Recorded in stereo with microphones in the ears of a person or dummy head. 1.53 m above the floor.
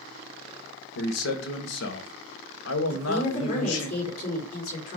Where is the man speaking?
85° left, 1.5 m.